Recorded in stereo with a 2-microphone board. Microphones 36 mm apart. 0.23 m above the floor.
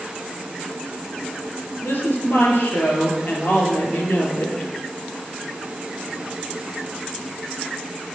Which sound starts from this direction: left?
A woman speaking, at 1.8 s.